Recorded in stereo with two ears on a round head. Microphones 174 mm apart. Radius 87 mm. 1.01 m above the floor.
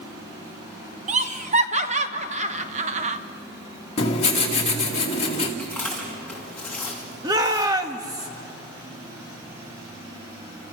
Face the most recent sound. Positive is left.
turn(degrees=-20)  # may be behind; listen again after turning